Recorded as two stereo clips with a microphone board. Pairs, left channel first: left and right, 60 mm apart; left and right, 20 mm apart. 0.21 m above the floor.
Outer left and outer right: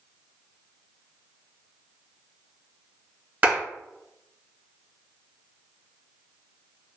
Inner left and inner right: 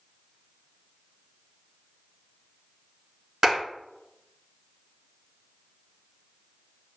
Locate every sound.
3.4 s a clap: 25° right (ahead or behind), 1.9 m